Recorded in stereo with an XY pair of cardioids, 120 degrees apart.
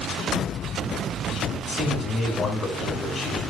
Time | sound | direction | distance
1.7 | a man speaking | 25° left | 8 m